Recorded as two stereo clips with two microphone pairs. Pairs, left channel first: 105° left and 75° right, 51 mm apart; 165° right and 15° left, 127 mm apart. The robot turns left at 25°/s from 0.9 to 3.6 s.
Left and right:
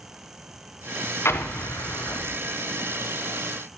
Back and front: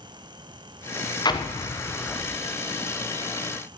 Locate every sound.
1.2 s an explosion: 145° left, 1.0 m; by 2.4 s 115° left, 1.0 m